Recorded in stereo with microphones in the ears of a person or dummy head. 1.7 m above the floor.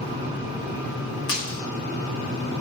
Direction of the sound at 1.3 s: 25° left (ahead or behind).